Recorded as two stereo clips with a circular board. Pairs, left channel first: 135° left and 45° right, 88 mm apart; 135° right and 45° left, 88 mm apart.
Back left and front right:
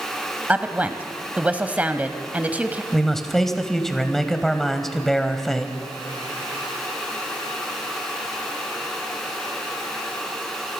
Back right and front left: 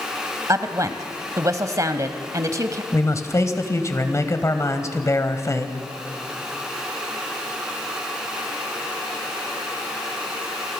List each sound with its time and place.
0.5 s a woman speaking: 20° left, 1.2 m
2.9 s a man speaking: 140° right, 1.7 m